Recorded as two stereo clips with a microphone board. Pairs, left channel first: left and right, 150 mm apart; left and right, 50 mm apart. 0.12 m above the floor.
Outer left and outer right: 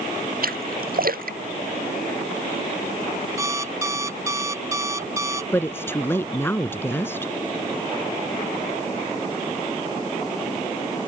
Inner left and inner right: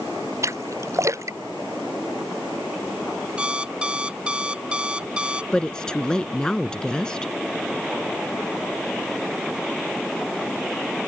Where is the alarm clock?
20° right (ahead or behind).